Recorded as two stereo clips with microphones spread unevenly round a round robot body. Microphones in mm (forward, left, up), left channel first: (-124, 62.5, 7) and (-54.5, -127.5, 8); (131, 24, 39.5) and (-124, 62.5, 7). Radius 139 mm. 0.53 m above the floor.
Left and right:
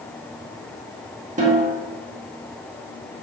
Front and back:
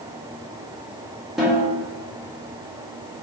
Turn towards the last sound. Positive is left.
turn(degrees=-105)